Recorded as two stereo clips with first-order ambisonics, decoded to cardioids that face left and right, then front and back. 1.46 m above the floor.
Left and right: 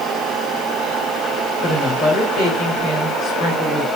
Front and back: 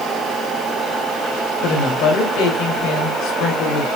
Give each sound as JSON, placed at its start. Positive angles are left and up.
{"t": 1.6, "sound": "a woman speaking", "azimuth_deg": 30, "distance_m": 3.5}